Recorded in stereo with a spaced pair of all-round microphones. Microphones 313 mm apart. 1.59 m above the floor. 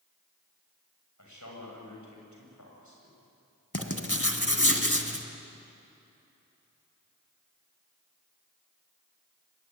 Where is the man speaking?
65° left (ahead or behind), 7 m.